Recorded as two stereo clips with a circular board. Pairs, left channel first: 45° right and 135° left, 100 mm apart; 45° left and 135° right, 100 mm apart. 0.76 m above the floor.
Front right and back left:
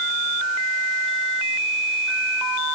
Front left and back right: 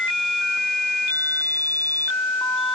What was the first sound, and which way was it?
Only background noise.